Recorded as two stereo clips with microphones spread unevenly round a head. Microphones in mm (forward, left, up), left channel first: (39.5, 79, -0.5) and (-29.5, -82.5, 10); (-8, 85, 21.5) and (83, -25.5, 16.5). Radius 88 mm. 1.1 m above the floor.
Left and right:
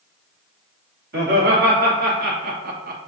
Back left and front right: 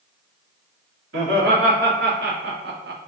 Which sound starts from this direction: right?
Laughter, at 1.1 s.